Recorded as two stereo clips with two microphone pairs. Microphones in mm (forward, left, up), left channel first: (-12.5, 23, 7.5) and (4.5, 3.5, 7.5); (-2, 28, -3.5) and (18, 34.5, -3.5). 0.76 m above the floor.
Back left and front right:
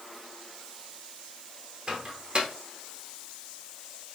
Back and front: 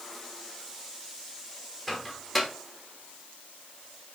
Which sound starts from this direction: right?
A microwave, at 1.9 s.